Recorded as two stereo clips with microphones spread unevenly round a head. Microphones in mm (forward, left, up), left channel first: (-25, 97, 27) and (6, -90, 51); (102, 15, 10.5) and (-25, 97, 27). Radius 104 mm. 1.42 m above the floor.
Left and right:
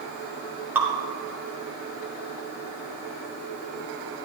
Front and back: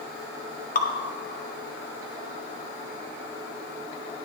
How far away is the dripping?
About 1.3 m.